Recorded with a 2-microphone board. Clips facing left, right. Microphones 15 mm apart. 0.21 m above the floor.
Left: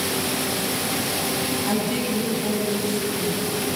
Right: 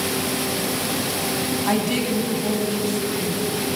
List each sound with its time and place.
1.7 s a woman speaking: 30° right (ahead or behind), 1.8 m; by 3.5 s 5° left (ahead or behind), 2 m